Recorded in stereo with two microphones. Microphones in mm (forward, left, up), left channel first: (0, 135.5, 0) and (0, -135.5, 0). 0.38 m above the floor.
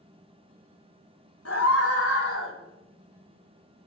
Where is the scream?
60° left (ahead or behind), 2.5 m; by 2.5 s 50° left (ahead or behind), 1.7 m.